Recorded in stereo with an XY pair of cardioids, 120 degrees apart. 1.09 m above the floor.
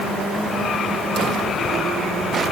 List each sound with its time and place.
Only background noise.